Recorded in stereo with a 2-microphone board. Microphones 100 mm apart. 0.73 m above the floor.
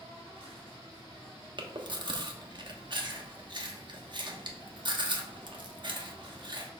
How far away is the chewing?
About 1.0 m.